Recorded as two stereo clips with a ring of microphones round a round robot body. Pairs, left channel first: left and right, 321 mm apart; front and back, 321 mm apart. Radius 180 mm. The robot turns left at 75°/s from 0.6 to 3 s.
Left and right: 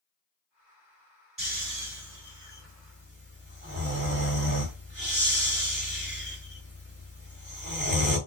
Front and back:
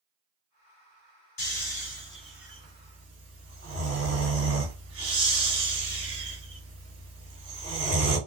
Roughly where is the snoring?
Ahead.